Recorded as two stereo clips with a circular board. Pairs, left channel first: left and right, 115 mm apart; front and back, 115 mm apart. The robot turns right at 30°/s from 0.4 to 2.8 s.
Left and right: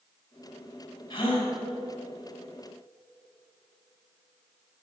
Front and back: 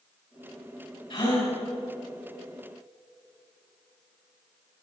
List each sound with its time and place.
1.1 s a gasp: 40° left, 4 m; by 1.5 s 55° left, 4 m